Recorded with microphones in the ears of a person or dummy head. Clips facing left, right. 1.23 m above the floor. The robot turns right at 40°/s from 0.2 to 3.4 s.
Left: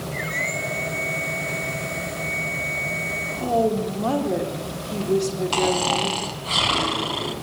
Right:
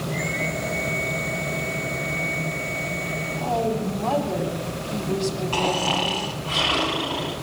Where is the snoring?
55° left (ahead or behind), 1.9 m.